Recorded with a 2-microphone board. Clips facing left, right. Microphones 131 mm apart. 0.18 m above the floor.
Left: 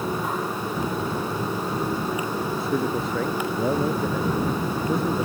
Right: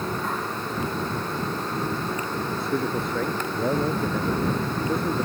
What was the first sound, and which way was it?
A man speaking, centre (ahead or behind).